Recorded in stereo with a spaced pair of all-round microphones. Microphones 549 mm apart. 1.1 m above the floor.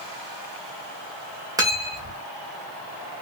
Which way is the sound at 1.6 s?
5° right (ahead or behind).